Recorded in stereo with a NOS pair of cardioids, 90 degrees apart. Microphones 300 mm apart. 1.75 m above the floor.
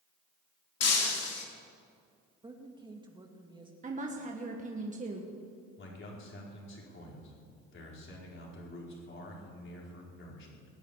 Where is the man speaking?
40° left, 5 m.